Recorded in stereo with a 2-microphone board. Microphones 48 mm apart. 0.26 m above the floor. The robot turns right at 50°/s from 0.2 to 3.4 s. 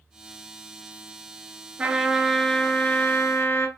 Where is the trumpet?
25° right, 0.6 m; by 3.7 s 55° left, 0.6 m.